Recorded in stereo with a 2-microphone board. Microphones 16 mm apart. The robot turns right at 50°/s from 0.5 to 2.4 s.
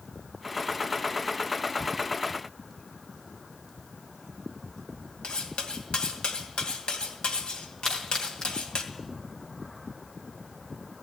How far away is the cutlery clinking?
About 2.5 m.